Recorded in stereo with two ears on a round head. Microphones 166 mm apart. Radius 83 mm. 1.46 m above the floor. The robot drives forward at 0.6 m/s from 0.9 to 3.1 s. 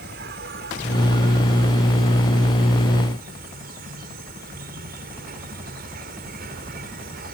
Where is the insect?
60° right (ahead or behind); by 7.3 s 55° right (ahead or behind).